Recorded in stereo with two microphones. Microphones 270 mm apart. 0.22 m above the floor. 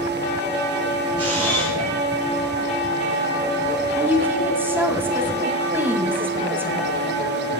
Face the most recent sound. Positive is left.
turn(degrees=-10)  # may be behind; listen again after turning